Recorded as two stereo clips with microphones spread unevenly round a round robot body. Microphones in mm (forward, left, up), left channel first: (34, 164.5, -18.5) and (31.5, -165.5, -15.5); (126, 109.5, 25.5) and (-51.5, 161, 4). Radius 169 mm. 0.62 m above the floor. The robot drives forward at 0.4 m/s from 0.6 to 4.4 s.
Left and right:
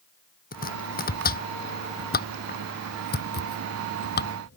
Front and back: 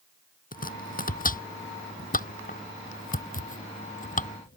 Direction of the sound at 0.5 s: 25° left.